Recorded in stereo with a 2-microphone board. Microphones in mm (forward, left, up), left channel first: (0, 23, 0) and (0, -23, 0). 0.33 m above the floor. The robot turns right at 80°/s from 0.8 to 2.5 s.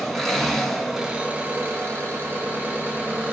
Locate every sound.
0.0 s an engine running: 175° left, 2.0 m; by 3.3 s 50° right, 2.0 m